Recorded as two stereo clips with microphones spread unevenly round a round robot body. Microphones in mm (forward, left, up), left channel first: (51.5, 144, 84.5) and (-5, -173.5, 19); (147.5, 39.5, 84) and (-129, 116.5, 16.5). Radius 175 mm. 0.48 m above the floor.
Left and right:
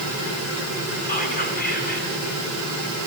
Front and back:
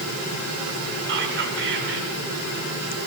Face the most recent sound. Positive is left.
turn(degrees=150)